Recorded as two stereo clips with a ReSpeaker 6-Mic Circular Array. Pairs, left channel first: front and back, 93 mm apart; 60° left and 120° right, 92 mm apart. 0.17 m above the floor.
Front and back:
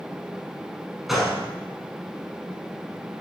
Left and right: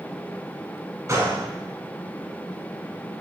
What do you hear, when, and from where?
1.1 s a gunshot: 90° right, 1.1 m